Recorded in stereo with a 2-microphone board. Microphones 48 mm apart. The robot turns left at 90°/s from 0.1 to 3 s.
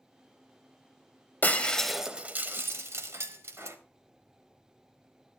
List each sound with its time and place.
1.4 s breaking glass: 40° left (ahead or behind), 1.0 m; by 3.8 s 65° right (ahead or behind), 1.0 m